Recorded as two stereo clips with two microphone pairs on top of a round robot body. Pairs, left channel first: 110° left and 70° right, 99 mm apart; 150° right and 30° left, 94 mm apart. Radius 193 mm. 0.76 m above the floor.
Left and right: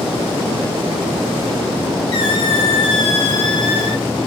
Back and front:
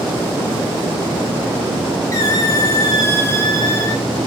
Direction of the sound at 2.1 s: 150° left.